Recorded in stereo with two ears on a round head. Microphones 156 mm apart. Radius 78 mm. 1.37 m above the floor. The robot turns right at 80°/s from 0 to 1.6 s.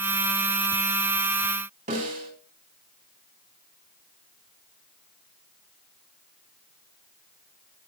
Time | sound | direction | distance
1.9 | a snare drum | 50° right (ahead or behind) | 3.5 m